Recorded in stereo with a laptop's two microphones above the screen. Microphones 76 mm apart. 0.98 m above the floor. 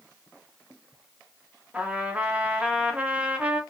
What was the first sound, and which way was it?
A trumpet, 20° right (ahead or behind).